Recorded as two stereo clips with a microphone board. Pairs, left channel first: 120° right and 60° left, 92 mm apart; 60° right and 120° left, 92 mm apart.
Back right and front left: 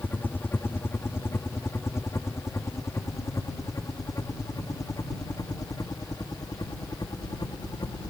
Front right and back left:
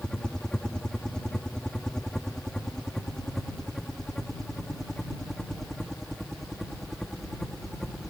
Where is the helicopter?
125° right; by 8.1 s 150° right.